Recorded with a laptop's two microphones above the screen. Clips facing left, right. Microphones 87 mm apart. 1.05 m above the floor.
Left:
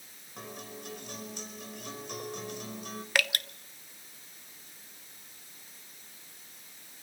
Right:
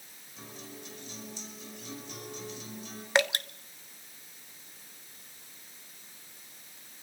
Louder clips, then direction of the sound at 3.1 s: Right 4 dB; 25° right (ahead or behind).